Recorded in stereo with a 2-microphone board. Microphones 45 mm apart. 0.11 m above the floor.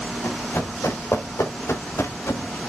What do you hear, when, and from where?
0.2 s running footsteps: 80° left, 4 m; by 2.6 s 85° left, 1.7 m